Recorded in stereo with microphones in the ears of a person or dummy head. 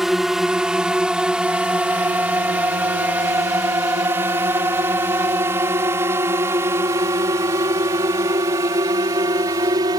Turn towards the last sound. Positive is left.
turn(degrees=-15)  # may be behind; listen again after turning